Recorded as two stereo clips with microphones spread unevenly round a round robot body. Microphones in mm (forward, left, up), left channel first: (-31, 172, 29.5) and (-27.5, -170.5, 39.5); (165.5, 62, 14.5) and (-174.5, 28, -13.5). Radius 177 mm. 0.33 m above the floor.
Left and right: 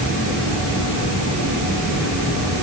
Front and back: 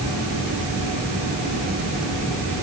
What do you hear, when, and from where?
Only background noise.